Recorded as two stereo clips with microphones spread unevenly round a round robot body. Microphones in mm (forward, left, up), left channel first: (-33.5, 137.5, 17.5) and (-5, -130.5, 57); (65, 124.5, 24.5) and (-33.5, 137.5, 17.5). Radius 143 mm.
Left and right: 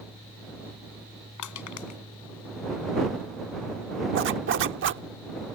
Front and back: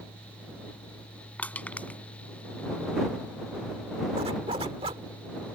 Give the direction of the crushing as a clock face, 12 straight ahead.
10 o'clock.